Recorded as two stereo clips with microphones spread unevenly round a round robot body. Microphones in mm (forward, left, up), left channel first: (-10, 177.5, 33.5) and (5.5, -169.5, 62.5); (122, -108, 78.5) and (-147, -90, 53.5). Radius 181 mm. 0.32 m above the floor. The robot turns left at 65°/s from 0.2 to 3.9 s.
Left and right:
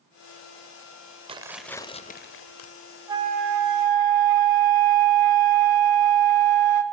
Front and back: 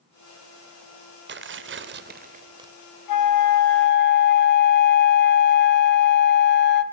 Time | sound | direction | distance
1.3 | tearing paper | 160° right | 0.8 m
3.1 | a flute | 5° right | 0.9 m